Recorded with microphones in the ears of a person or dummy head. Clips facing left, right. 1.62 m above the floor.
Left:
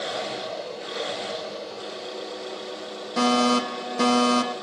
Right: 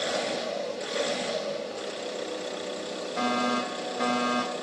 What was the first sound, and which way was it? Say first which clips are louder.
An engine running: right 1 dB; 80° right.